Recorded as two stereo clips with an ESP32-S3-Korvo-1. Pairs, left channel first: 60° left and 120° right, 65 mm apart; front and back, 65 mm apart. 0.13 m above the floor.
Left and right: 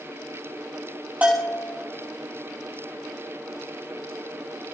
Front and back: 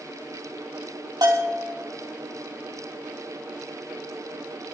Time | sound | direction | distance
1.2 | a bell | 175° left | 3.5 m